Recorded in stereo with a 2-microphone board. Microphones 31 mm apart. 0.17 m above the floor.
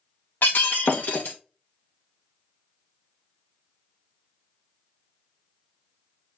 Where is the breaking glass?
80° left, 1.9 m.